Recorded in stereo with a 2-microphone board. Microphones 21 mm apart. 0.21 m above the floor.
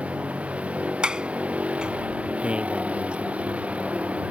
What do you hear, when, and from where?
0.0 s a vehicle: 75° right (ahead or behind)
1.0 s a sliding door: 45° right (ahead or behind)
2.4 s a man speaking: 60° right (ahead or behind)